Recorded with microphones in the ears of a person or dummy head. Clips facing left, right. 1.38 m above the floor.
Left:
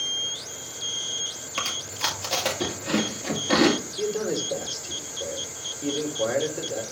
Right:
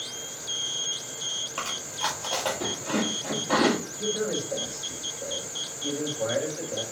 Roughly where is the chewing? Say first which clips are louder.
Even; left.